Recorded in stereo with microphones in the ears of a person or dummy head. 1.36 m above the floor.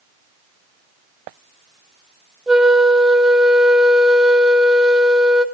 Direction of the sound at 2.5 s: 5° right (ahead or behind).